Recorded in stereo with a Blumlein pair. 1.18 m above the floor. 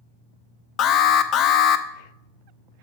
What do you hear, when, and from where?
0.8 s an alarm: 30° left, 0.5 m